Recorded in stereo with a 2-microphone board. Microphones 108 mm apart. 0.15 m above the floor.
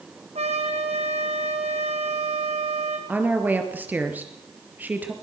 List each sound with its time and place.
0.3 s a trumpet: 75° right (ahead or behind), 2.5 m
3.1 s a woman speaking: 15° right (ahead or behind), 3 m